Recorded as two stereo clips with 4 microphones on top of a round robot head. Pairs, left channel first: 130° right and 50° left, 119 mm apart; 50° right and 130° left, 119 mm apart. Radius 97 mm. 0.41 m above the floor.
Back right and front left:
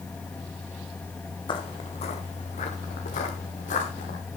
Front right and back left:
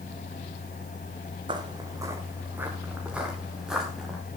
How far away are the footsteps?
About 2.0 m.